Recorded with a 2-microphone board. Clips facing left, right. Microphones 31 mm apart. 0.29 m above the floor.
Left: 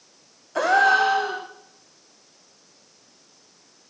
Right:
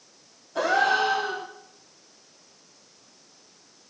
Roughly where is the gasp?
Left.